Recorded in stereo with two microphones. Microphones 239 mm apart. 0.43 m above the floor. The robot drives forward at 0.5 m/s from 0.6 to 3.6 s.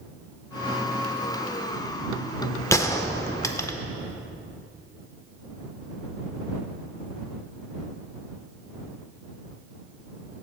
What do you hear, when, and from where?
2.7 s a gunshot: 15° left (ahead or behind), 0.6 m